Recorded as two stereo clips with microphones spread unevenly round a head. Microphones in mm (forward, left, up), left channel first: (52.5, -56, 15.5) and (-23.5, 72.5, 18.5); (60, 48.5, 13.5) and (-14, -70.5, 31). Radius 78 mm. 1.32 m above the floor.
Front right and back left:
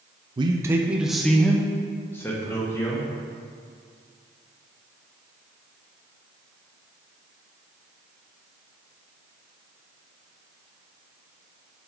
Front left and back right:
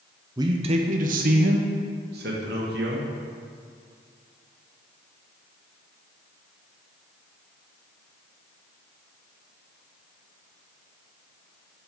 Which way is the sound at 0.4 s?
170° left.